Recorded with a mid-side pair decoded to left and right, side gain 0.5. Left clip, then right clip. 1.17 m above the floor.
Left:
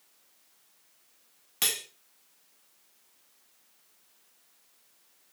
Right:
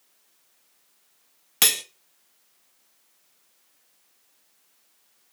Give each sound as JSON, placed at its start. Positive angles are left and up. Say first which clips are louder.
{"t": 1.6, "sound": "cutlery clinking", "louder": "right 8 dB", "azimuth_deg": -55, "distance_m": 0.8}